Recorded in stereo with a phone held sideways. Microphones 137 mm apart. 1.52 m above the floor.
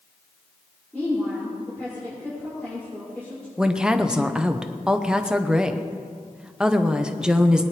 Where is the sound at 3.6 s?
5° right (ahead or behind), 0.8 m.